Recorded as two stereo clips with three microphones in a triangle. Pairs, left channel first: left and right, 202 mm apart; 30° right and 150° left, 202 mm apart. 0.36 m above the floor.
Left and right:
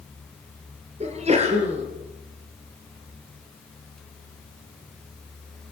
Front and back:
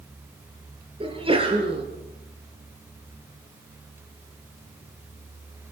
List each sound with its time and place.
1.0 s a sneeze: 145° right, 5.5 m